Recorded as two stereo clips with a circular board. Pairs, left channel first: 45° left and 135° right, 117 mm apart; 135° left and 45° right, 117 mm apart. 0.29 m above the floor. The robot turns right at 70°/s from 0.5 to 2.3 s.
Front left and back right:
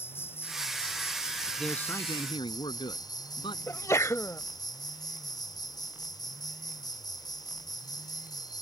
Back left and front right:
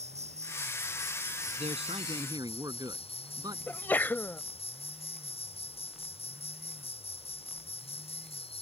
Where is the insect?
25° right; by 8.6 s 100° left.